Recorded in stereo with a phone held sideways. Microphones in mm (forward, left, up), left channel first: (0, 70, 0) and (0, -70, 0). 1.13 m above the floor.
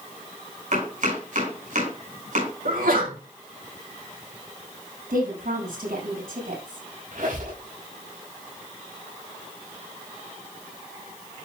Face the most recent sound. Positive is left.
turn(degrees=-75)  # may be behind; listen again after turning